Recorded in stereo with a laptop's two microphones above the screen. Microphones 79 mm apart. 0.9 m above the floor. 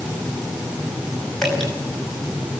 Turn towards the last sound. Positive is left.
turn(degrees=5)  # may be behind; listen again after turning